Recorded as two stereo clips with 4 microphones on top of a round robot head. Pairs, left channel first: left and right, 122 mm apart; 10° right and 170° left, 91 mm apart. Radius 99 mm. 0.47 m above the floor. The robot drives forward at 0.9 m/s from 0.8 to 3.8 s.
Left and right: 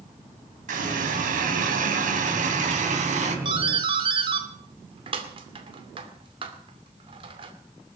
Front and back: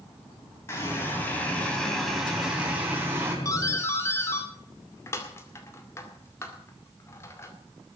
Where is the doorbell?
55° right, 2.5 m; by 7.5 s 60° right, 2.5 m.